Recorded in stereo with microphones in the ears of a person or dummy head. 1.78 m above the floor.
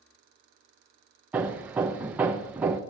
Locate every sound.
1.3 s hammering: 10° right (ahead or behind), 1.0 m